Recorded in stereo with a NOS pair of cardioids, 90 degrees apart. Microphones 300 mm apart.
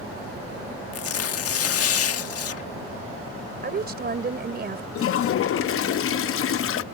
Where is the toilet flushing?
50° left.